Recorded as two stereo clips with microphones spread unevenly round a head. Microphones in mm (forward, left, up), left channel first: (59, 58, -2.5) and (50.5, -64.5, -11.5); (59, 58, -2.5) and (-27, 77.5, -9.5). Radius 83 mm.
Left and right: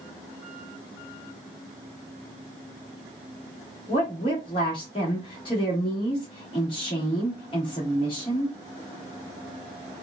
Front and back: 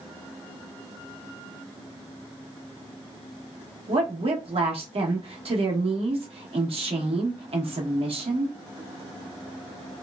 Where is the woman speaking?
150° left, 1.1 m.